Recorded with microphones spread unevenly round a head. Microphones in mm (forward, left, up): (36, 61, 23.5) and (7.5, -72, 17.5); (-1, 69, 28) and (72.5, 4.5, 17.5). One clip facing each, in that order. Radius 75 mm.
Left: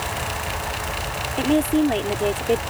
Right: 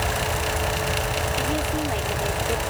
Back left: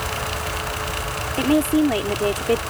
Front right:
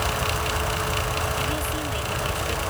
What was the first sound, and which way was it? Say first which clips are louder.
A woman speaking: left 12 dB, back left 11 dB; 125° left.